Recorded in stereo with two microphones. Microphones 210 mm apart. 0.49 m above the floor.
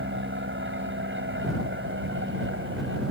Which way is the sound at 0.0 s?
60° right (ahead or behind).